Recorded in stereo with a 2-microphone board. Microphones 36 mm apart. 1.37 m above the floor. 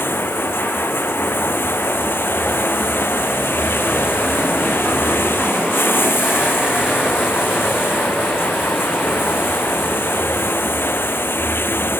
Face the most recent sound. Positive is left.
turn(degrees=85)